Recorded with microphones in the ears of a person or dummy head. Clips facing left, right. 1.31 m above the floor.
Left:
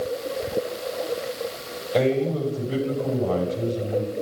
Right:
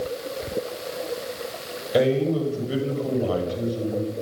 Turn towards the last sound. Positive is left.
turn(degrees=-15)  # may be behind; listen again after turning